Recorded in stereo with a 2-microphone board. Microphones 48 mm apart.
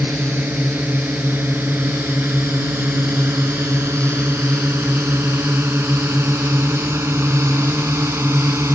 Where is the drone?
40° right (ahead or behind); by 8.8 s 65° right (ahead or behind).